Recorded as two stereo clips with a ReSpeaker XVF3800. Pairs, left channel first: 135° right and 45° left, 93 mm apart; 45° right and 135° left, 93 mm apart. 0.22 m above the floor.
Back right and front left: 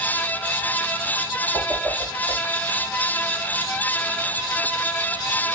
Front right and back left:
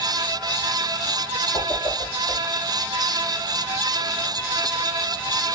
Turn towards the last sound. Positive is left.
turn(degrees=-55)